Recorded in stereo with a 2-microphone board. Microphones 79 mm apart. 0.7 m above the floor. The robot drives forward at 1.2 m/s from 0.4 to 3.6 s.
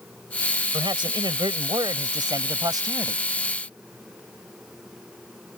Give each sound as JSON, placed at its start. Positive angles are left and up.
{"t": 0.7, "sound": "a man speaking", "side_deg": -75}